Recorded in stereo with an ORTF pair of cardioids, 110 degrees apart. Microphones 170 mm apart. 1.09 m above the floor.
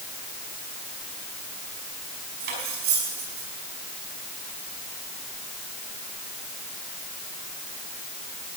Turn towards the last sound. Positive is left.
turn(degrees=-70)